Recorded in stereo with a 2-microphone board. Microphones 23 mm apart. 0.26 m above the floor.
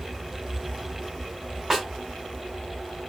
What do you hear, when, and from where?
1.7 s a snare drum: 20° right (ahead or behind), 1.3 m